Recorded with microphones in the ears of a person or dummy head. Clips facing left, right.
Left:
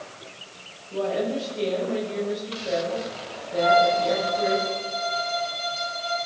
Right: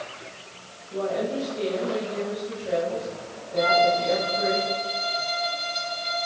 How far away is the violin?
About 5.5 m.